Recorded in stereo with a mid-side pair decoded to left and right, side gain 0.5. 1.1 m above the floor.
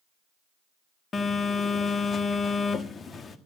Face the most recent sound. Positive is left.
turn(degrees=35)